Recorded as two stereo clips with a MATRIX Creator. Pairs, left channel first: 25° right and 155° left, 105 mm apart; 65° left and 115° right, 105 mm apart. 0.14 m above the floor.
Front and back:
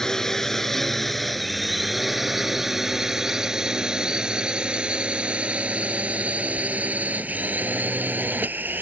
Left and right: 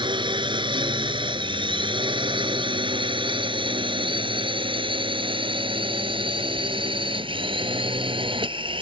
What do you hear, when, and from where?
0.0 s a drone: 105° right; by 8.8 s 135° right